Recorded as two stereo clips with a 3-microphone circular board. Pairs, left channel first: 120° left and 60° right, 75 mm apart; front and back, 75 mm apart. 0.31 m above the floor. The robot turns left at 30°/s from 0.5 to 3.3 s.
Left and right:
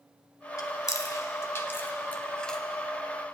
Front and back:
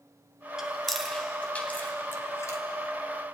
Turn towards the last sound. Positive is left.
turn(degrees=15)